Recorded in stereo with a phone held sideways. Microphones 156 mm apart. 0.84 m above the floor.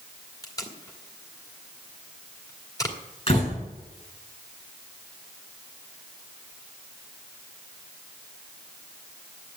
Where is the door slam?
40° left (ahead or behind), 7.5 m.